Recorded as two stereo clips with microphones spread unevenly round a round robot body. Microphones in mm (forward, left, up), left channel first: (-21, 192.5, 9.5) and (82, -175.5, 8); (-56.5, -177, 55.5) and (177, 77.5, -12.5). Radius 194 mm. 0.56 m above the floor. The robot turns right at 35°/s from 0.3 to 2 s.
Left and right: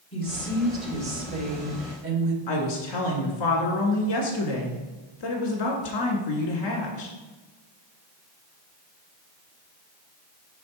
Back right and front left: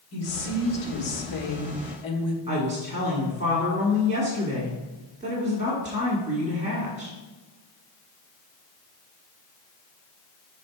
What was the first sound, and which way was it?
A woman speaking, straight behind.